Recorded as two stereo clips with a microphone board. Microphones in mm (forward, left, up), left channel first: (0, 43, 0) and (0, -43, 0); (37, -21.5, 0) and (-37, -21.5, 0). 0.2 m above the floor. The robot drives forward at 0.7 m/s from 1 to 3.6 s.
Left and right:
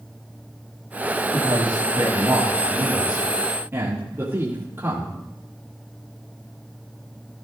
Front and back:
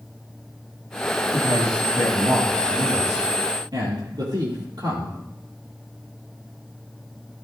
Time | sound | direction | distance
1.3 | a man speaking | 140° right | 3.5 m